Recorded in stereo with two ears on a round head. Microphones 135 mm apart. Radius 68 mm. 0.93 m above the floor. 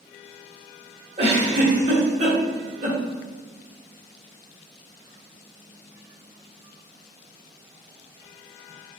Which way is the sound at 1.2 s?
50° right (ahead or behind).